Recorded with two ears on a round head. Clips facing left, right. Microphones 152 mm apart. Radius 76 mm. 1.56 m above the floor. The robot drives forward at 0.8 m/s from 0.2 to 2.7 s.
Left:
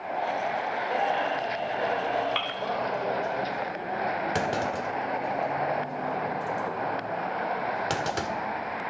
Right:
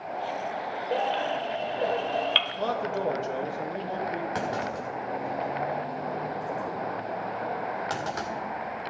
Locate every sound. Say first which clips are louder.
0.9 s a baby crying: right 1 dB; 40° right (ahead or behind), 1.6 m; by 2.5 s 35° right (ahead or behind), 1.8 m
2.6 s a man speaking: right 1 dB; 70° right (ahead or behind), 2.5 m; by 4.2 s 65° right (ahead or behind), 3 m
4.3 s a clunk: left 2 dB; 35° left (ahead or behind), 1.8 m